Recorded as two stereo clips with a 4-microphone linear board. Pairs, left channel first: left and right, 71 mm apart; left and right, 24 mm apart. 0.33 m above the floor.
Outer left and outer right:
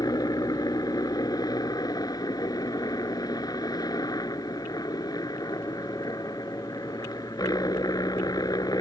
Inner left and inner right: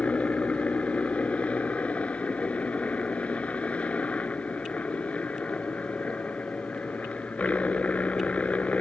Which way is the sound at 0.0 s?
65° left (ahead or behind).